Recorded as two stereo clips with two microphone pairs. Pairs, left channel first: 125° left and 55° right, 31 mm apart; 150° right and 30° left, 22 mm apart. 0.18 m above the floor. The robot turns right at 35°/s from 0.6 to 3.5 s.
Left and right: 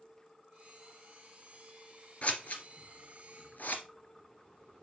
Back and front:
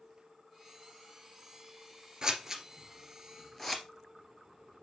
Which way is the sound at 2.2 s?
85° left.